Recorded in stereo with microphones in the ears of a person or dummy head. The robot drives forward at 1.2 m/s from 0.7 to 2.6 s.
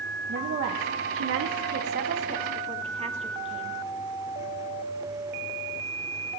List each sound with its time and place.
0.3 s a woman speaking: 50° right (ahead or behind), 1.1 m; by 3.8 s 25° right (ahead or behind), 1.8 m